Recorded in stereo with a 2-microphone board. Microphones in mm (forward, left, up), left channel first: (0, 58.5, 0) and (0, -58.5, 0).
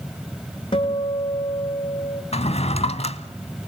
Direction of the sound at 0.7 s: 45° left (ahead or behind).